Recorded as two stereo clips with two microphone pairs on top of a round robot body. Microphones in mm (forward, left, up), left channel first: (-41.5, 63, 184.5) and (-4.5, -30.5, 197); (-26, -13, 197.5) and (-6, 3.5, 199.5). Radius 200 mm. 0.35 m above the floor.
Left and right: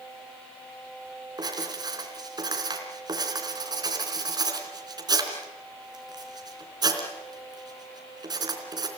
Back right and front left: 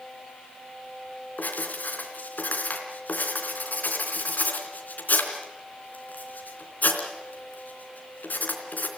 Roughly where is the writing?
Behind right.